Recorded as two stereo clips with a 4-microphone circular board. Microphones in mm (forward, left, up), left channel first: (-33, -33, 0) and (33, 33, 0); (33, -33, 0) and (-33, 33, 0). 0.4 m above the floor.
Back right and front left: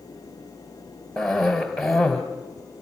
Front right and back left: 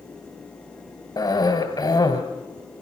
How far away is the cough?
About 2.0 m.